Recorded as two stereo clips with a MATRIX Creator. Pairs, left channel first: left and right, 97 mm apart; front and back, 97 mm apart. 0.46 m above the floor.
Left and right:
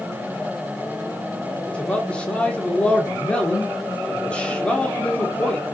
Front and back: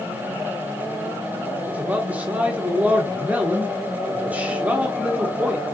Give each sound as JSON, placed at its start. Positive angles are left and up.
{"t": 1.7, "sound": "a man speaking", "azimuth_deg": 145, "distance_m": 0.9}